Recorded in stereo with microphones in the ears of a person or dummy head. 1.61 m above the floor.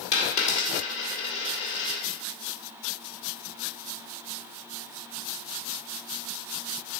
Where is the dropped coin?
45° left (ahead or behind), 2 m.